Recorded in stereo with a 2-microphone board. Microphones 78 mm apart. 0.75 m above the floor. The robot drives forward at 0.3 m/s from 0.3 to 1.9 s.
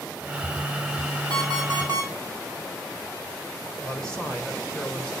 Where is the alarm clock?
60° right (ahead or behind), 3 m; by 2.1 s 55° right (ahead or behind), 3 m.